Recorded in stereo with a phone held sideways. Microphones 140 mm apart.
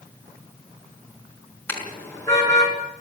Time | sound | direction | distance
1.7 | a car horn | 15° left (ahead or behind) | 5 m